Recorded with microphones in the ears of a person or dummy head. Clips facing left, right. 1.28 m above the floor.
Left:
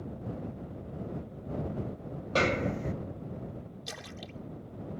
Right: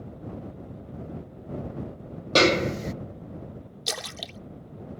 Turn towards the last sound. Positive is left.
turn(degrees=-70)  # may be behind; listen again after turning